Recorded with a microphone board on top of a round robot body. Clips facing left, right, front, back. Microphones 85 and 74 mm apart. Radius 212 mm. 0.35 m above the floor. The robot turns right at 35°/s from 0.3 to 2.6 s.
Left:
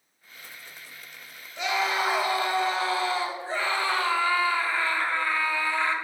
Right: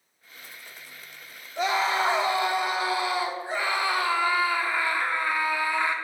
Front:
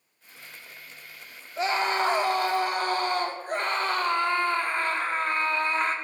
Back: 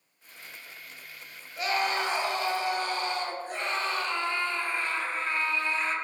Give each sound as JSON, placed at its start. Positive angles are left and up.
{"t": 1.6, "sound": "a scream", "azimuth_deg": -55, "distance_m": 1.8}